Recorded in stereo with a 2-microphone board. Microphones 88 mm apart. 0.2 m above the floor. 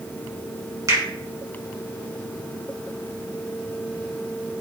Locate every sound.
0.9 s a finger snap: 40° right (ahead or behind), 1.9 m